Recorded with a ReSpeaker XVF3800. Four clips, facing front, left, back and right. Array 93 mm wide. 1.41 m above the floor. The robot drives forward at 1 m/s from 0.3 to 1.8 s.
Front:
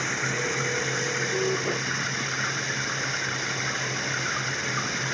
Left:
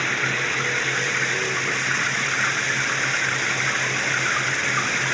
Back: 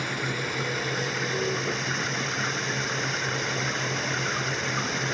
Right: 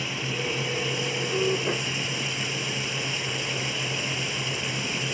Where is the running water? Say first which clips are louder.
Left 7 dB, front 2 dB; 75° left; by 5.1 s 85° left.